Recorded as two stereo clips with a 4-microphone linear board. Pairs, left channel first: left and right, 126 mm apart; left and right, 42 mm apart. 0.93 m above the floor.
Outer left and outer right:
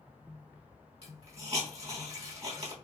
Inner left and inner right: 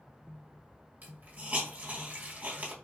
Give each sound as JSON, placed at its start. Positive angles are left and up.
{"t": 1.0, "sound": "a hiss", "side_deg": -55, "distance_m": 1.5}